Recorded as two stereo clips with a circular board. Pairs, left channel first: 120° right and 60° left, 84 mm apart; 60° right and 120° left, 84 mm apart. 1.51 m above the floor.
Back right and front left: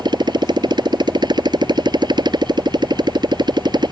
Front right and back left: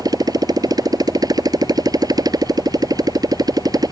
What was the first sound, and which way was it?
A motorcycle, 85° left.